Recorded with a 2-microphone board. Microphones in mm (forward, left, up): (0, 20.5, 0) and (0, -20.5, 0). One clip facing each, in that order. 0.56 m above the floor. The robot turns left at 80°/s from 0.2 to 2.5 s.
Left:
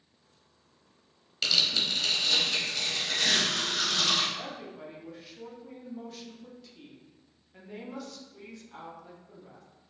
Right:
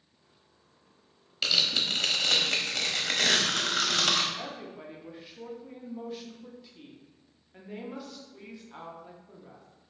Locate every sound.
1.4 s tearing paper: 5° right, 0.8 m; by 4.2 s 95° right, 0.8 m
4.3 s a woman speaking: 15° right (ahead or behind), 0.7 m